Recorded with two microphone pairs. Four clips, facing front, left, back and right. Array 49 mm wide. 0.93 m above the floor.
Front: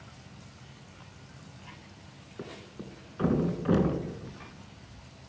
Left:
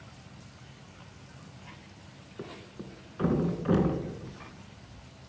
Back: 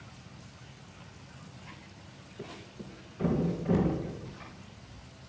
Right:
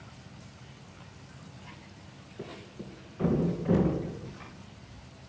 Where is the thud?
50° left, 3 m.